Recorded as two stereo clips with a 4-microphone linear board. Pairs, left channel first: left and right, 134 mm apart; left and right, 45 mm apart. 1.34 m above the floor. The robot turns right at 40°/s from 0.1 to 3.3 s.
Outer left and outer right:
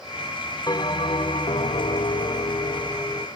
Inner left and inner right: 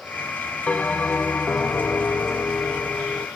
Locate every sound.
0.7 s a bell: 50° left, 1.2 m; by 3.3 s 155° left, 1.2 m